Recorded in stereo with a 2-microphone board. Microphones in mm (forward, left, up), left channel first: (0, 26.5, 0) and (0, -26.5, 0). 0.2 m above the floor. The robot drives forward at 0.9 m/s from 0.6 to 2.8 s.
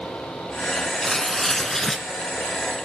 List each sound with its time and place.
1.0 s tearing paper: 10° left (ahead or behind), 1.7 m; by 2.1 s 5° left (ahead or behind), 2.5 m